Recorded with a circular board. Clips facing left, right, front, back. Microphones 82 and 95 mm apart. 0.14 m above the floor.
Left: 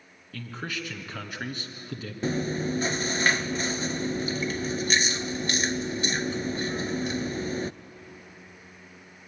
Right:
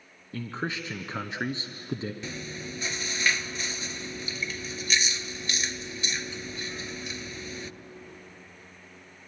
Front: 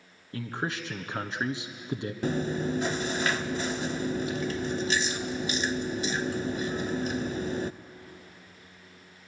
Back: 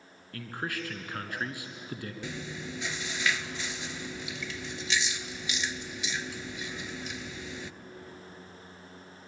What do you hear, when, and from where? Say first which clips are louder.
0.3 s a man speaking: right 3 dB, front 3 dB; 50° right, 1.4 m
2.2 s chewing: left 10 dB, front 15 dB; 45° left, 0.6 m